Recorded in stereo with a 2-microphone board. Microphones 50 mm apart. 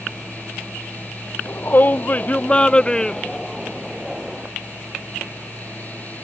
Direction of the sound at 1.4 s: 45° left (ahead or behind).